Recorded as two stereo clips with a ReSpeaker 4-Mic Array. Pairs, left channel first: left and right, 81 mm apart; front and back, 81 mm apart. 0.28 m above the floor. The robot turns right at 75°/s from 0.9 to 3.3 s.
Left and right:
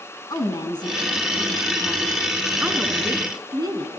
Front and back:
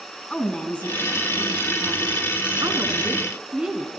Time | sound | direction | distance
0.3 | a woman speaking | 75° left | 3.5 m